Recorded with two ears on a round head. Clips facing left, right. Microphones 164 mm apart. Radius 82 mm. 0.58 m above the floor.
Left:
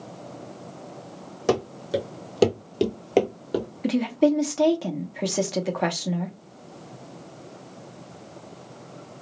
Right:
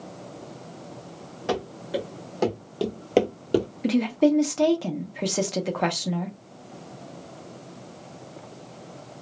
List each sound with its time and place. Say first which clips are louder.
1.5 s running footsteps: left 4 dB; 60° left (ahead or behind), 1.5 m; by 3.7 s 35° right (ahead or behind), 0.7 m
3.8 s a woman speaking: left 1 dB; centre (ahead or behind), 0.6 m